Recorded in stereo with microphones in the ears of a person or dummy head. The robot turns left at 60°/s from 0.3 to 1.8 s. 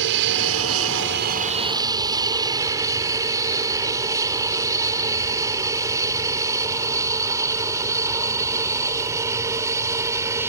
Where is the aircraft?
65° right (ahead or behind); by 10.5 s 15° right (ahead or behind).